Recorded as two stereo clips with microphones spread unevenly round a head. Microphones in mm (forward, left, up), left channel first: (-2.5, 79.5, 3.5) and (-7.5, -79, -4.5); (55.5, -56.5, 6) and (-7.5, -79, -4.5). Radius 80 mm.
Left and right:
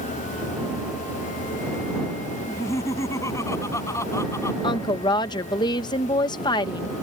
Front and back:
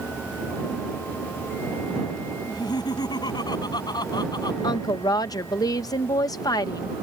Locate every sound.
2.5 s laughter: 15° left
4.6 s a woman speaking: 30° left